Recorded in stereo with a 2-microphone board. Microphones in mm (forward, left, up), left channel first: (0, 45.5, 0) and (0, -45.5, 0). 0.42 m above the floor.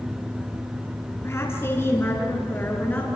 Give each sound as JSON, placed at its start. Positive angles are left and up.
{"t": 1.2, "sound": "a woman speaking", "side_deg": 30, "distance_m": 5.0}